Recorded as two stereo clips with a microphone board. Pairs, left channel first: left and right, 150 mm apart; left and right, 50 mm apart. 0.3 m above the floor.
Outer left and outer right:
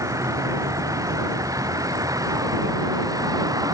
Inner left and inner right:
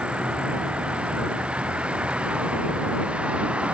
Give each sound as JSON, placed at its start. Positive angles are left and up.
{"t": 0.0, "sound": "a vehicle", "side_deg": -20}